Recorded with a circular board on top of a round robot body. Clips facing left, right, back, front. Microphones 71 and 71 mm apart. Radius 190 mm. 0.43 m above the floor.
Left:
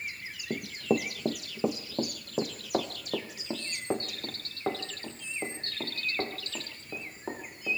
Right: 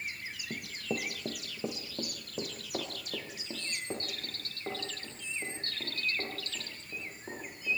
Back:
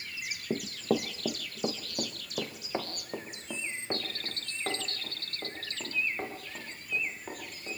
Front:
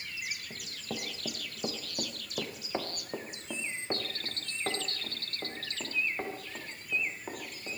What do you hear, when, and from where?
0.5 s running footsteps: 150° left, 0.6 m; by 7.8 s 85° left, 7.5 m